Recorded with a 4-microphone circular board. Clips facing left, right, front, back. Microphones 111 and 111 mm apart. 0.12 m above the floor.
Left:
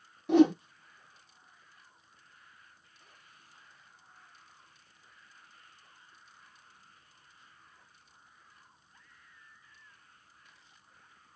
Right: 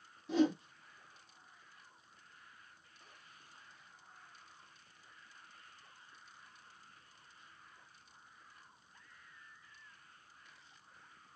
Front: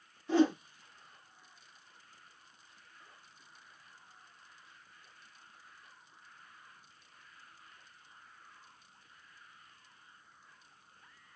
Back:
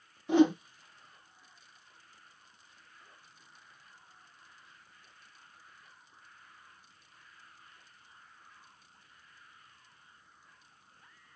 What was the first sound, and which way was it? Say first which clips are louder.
A whoosh: left 9 dB, back 3 dB; 110° left.